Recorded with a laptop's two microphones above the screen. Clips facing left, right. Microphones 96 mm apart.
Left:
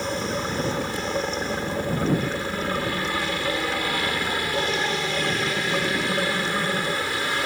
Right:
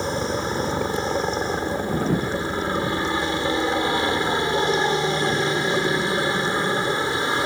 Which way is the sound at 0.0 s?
25° right (ahead or behind).